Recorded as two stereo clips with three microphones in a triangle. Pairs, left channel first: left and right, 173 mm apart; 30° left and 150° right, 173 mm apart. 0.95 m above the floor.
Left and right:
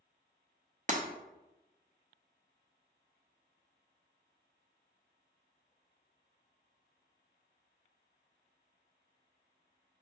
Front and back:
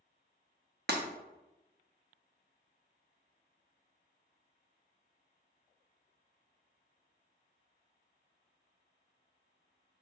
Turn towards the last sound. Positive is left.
turn(degrees=-135)